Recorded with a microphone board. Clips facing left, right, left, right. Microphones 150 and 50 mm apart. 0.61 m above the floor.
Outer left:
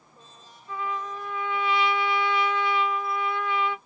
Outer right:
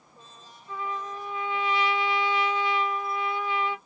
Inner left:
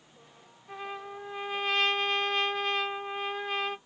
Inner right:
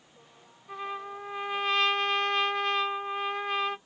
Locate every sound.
0.7 s a trumpet: centre (ahead or behind), 1.6 m